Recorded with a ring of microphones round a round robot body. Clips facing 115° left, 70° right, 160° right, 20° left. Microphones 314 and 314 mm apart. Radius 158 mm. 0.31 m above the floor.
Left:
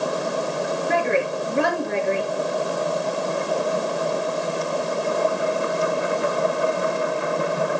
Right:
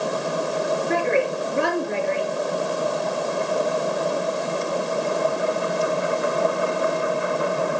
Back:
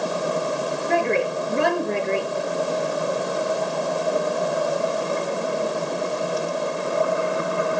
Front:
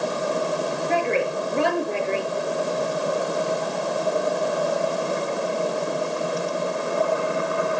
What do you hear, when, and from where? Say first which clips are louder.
0.9 s a woman speaking: even, back 2 dB; 130° left, 5.5 m